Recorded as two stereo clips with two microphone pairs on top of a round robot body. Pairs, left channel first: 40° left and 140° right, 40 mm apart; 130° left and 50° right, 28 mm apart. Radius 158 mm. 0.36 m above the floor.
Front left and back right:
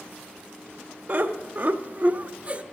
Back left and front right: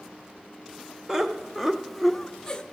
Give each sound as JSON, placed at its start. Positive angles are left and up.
{"t": 1.1, "sound": "laughter", "azimuth_deg": -120, "distance_m": 1.4}